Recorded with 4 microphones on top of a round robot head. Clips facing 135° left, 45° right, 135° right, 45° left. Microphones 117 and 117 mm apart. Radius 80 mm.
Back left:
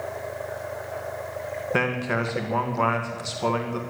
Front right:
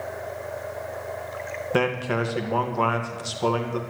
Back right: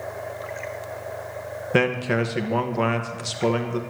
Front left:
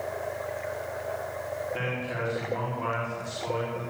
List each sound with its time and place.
1.7 s a man speaking: 125° right, 2 m